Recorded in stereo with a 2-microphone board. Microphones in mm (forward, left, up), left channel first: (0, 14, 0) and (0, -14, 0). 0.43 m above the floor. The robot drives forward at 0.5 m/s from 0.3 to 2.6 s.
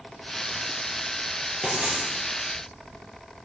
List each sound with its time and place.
1.6 s writing: 60° right (ahead or behind), 3.5 m